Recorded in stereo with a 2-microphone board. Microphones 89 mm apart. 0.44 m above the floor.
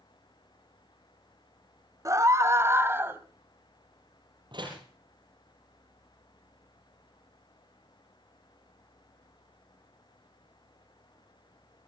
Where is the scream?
40° right (ahead or behind), 1.7 m; by 3.2 s 25° right (ahead or behind), 2.5 m.